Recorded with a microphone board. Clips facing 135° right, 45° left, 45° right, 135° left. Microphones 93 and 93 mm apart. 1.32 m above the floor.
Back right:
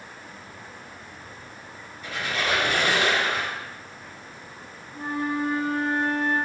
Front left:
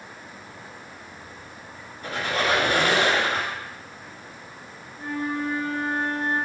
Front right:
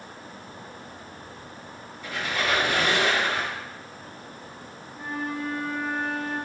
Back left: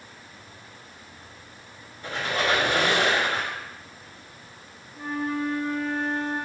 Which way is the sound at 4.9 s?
130° right.